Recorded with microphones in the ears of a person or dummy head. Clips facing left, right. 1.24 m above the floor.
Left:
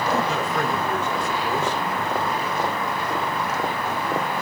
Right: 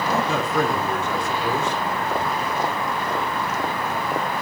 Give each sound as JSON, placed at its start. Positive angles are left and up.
{"t": 0.3, "sound": "a man speaking", "side_deg": -85, "distance_m": 3.5}